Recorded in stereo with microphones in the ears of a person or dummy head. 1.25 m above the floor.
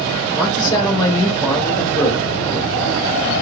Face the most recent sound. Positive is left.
turn(degrees=20)  # may be behind; listen again after turning